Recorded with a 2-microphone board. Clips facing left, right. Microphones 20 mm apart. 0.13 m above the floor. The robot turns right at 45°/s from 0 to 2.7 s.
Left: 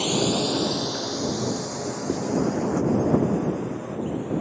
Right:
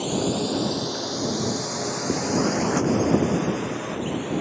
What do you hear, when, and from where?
0.0 s a drone: 35° left (ahead or behind); by 4.4 s 65° right (ahead or behind)
2.1 s writing: 5° right (ahead or behind); by 2.3 s 10° right (ahead or behind)